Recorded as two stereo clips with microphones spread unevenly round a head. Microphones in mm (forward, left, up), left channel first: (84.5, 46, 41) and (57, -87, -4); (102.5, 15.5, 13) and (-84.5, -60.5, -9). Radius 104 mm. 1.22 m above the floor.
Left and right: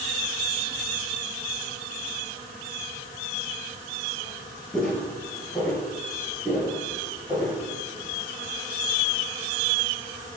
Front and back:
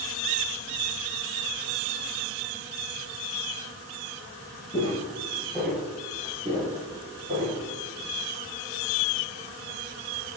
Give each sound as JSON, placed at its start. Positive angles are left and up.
{"t": 4.7, "sound": "footsteps", "azimuth_deg": 35, "distance_m": 1.3}